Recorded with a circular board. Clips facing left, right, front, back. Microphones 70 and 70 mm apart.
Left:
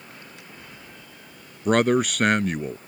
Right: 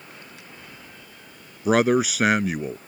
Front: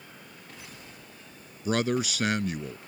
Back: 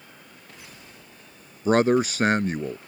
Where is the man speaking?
175° right.